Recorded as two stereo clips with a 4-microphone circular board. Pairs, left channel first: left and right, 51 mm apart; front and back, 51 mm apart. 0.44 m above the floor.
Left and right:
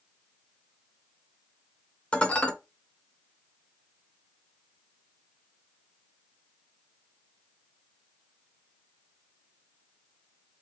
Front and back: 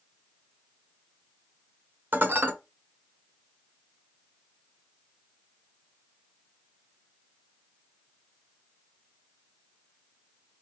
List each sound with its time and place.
2.1 s dishes clattering: 150° left, 1.0 m